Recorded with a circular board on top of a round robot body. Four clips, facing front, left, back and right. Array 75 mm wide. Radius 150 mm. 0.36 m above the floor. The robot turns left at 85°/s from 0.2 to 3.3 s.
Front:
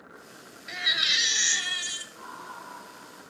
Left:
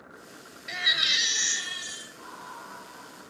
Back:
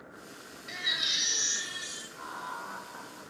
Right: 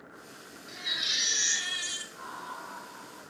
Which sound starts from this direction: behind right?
Laughter, at 2.1 s.